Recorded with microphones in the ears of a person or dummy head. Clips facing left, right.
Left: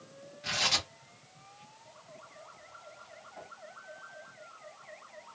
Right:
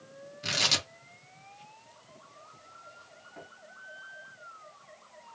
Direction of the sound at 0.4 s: 60° right (ahead or behind).